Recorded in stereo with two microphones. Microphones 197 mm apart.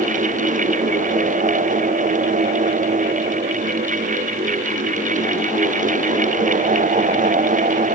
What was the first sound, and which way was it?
Only background noise.